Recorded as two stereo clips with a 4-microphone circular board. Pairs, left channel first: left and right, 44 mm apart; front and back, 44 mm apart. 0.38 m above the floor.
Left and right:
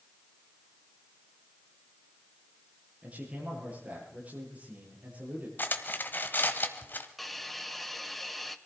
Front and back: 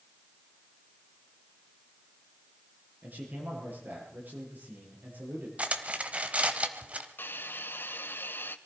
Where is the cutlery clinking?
130° left, 1.4 m.